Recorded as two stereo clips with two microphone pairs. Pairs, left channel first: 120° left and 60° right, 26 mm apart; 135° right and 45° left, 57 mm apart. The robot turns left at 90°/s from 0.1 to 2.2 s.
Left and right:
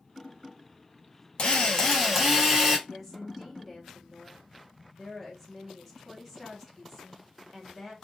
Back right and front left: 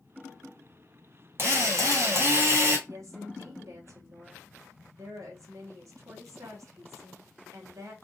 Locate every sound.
1.4 s a drill: 90° left, 1.3 m; by 2.8 s 15° left, 1.3 m
2.9 s a woman speaking: 30° left, 1.2 m